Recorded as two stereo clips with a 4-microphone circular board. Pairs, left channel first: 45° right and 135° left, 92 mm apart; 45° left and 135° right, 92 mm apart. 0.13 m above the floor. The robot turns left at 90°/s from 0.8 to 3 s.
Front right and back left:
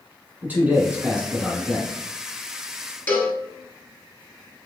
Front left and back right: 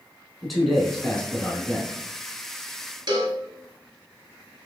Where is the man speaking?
130° left, 1.2 m; by 2.0 s 25° left, 1.2 m.